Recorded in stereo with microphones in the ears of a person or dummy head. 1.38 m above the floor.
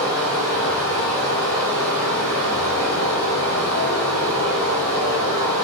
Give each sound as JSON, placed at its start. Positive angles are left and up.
{"t": 0.0, "sound": "running water", "side_deg": 15, "distance_m": 1.7}